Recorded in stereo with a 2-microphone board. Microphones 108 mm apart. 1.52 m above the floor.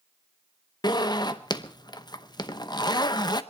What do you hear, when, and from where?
0.8 s a zipper: 40° left (ahead or behind), 0.8 m